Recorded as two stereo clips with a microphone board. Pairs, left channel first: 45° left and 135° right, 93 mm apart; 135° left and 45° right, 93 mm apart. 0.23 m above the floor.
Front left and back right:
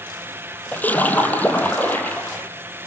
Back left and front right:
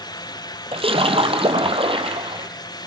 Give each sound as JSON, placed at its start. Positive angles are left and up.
{"t": 0.7, "sound": "a splash", "azimuth_deg": -30, "distance_m": 3.5}